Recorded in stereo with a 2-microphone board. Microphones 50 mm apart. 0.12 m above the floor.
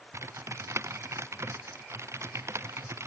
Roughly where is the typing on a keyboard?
Right.